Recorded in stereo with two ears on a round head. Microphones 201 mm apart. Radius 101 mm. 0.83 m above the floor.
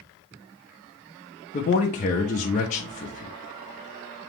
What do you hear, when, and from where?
1.5 s a man speaking: 30° left (ahead or behind), 0.6 m